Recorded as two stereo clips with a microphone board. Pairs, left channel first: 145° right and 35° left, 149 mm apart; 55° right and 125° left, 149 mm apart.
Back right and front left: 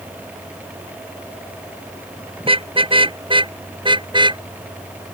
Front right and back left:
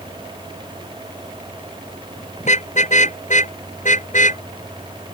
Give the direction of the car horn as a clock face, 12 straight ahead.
1 o'clock.